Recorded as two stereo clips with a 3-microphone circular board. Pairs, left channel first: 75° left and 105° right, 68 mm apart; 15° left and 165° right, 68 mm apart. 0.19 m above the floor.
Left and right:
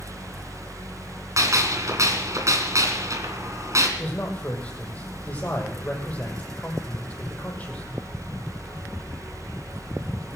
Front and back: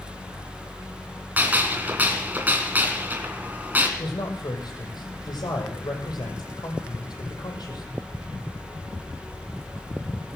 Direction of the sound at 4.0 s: 5° left.